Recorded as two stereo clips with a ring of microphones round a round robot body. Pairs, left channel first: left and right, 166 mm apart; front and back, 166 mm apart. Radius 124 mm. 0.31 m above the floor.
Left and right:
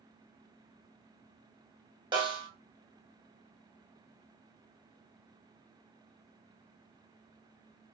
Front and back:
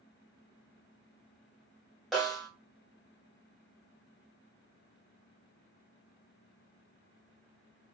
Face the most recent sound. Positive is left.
turn(degrees=-90)